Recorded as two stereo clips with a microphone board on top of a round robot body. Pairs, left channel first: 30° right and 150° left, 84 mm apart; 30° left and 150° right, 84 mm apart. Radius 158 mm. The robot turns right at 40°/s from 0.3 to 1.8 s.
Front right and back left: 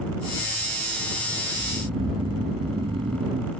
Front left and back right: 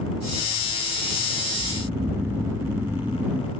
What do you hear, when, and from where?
1.5 s snoring: 130° left; by 3.5 s 140° left